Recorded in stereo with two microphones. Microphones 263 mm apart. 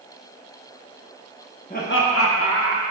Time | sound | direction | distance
1.7 | laughter | 30° left (ahead or behind) | 0.9 m